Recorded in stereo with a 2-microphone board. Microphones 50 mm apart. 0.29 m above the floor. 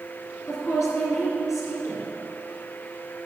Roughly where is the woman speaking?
Left.